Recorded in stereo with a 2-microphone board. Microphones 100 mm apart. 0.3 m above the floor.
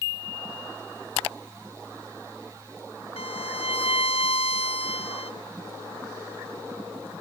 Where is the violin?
70° left (ahead or behind), 0.9 m.